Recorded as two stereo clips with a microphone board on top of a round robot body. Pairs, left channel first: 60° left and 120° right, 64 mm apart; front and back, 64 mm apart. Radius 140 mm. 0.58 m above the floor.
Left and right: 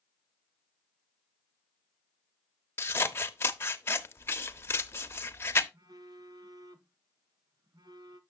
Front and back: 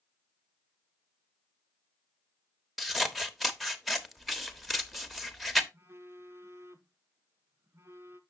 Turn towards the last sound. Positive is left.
turn(degrees=-125)